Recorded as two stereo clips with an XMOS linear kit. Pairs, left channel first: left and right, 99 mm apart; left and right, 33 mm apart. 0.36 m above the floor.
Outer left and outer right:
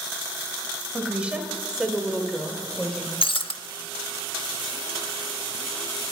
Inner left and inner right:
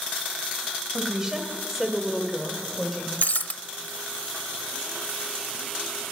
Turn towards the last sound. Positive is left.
turn(degrees=60)  # may be behind; listen again after turning